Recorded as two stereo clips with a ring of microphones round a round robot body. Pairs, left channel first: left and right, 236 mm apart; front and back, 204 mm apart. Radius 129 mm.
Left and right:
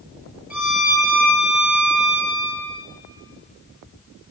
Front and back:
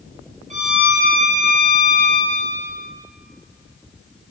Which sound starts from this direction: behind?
A violin, at 0.5 s.